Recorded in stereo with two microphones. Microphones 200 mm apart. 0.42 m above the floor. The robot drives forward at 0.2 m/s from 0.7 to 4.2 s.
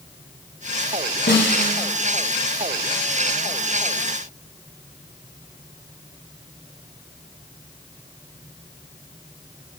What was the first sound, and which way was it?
A snare drum, 55° left (ahead or behind).